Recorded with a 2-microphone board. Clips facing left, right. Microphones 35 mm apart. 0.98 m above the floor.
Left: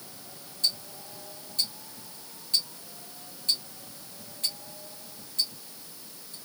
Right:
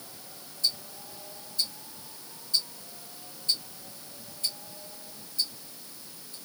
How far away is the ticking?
About 1.9 m.